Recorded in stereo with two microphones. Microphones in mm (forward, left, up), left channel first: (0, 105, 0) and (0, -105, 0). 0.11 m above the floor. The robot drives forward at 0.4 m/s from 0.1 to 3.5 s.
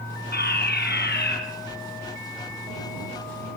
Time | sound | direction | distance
0.3 | a fire alarm | 50° left (ahead or behind) | 5.5 m